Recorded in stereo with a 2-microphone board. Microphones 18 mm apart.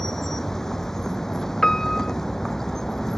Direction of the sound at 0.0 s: 30° left (ahead or behind).